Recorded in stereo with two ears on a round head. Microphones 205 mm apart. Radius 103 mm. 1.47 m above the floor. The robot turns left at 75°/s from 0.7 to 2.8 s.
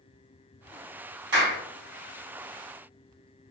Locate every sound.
1.3 s a clap: 55° right (ahead or behind), 1.9 m; by 1.6 s 35° right (ahead or behind), 1.9 m